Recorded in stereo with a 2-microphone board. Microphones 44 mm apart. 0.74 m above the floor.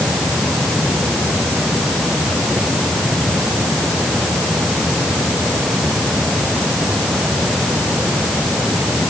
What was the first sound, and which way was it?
Only background noise.